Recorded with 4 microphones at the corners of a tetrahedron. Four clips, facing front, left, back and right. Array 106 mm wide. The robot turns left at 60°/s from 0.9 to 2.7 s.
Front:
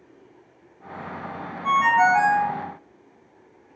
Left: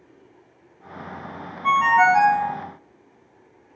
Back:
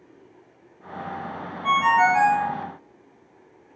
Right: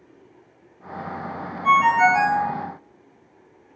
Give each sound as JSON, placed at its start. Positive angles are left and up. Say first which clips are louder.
{"t": 1.6, "sound": "a ringtone", "louder": "even, even", "azimuth_deg": 100, "distance_m": 1.6}